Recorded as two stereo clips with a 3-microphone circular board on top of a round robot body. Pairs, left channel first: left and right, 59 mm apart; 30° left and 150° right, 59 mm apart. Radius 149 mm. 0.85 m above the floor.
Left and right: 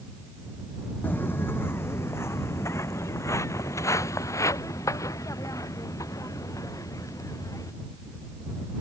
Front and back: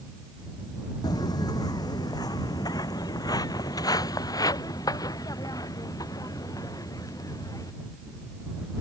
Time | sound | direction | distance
1.0 | footsteps | 30° left | ?